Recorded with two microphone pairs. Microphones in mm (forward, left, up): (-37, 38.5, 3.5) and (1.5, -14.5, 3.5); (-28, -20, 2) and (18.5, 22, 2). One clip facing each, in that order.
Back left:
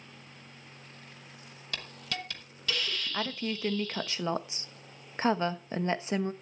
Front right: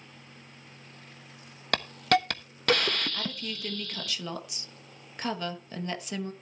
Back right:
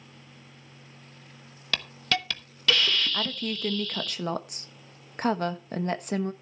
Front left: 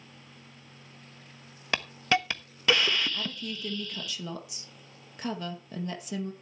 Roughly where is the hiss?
Ahead right.